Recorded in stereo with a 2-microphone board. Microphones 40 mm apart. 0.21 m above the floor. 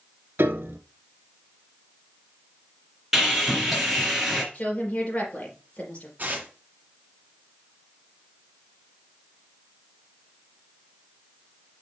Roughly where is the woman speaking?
Left.